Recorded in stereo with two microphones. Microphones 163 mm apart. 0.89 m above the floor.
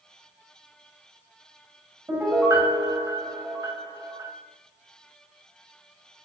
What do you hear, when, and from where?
2.1 s a piano: 20° right (ahead or behind), 5 m